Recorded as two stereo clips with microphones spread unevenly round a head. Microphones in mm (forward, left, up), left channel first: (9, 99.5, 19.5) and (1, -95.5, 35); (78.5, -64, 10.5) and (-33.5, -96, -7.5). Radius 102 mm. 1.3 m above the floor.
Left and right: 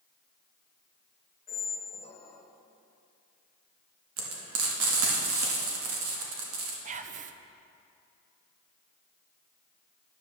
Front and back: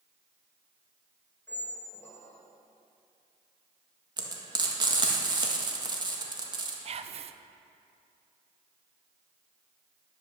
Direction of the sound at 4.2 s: 115° right.